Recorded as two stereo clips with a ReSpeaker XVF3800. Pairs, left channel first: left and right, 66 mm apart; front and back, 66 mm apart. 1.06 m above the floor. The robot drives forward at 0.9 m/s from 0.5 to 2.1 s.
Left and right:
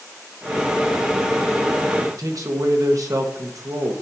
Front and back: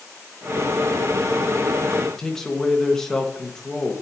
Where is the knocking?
I don't hear knocking.